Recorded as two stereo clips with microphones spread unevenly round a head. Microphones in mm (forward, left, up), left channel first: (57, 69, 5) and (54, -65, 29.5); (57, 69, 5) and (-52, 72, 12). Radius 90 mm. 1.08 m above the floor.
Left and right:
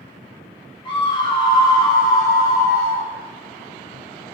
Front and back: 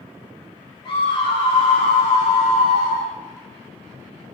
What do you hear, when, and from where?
0.8 s a scream: 35° left, 6.5 m; by 3.1 s 20° left, 8 m